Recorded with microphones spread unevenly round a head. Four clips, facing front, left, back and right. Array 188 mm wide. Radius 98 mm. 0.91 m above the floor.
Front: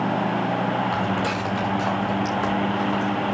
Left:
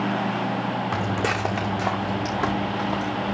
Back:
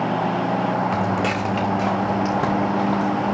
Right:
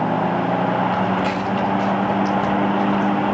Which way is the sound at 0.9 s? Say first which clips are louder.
Right 5 dB, back 2 dB; 145° left.